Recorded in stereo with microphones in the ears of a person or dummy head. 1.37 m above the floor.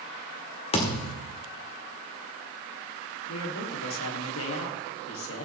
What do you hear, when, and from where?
0.7 s a thud: 35° left (ahead or behind), 1.7 m
3.3 s a man speaking: 85° left, 3 m